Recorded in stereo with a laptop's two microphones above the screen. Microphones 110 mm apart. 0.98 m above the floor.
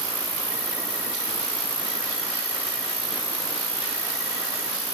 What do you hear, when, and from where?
0.0 s an insect: 10° right (ahead or behind), 1.1 m